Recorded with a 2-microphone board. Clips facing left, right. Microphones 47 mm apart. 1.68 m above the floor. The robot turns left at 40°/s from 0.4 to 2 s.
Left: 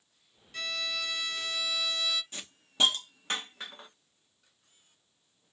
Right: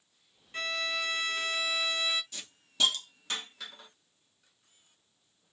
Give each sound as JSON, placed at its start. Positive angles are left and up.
{"t": 0.5, "sound": "a violin", "azimuth_deg": -55, "distance_m": 0.6}
{"t": 2.3, "sound": "a hiss", "side_deg": 30, "distance_m": 0.9}